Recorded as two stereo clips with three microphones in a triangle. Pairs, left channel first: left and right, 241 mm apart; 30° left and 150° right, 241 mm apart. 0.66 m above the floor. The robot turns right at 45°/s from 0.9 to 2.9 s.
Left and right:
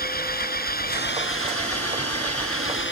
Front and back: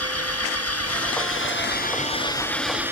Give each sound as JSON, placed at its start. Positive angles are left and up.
{"t": 0.0, "sound": "an engine running", "azimuth_deg": 40}